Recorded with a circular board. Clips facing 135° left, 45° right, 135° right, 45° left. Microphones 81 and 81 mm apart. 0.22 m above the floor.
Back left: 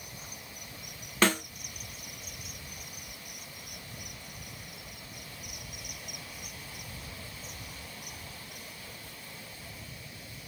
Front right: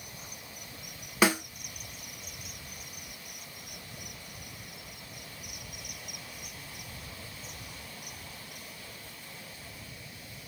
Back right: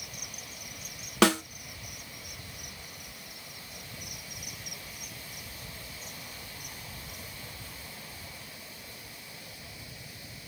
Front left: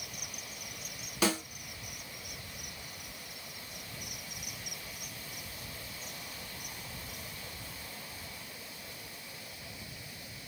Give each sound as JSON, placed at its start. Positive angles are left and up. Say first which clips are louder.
{"t": 1.2, "sound": "a snare drum", "louder": "front right 1 dB, back right 7 dB", "azimuth_deg": -125, "distance_m": 0.5}